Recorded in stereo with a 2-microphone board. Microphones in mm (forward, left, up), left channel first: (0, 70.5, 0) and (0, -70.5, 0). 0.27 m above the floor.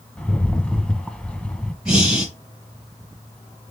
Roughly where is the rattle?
Centre.